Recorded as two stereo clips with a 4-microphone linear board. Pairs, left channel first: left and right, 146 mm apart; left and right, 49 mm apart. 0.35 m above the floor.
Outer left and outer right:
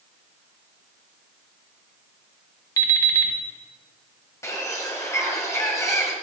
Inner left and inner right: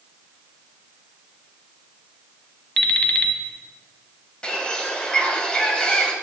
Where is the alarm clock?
20° left (ahead or behind), 1.0 m.